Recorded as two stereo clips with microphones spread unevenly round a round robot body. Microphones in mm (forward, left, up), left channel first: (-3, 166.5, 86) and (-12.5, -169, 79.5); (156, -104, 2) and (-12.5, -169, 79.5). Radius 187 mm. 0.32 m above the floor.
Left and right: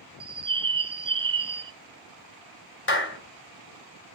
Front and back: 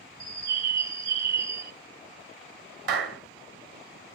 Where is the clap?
140° left, 1.8 m.